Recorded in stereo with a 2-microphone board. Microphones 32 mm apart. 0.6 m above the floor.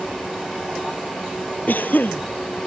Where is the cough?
80° left.